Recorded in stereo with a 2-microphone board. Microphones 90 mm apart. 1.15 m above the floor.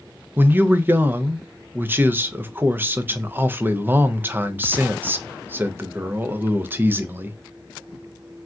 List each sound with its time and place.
0.4 s a man speaking: 25° right (ahead or behind), 0.5 m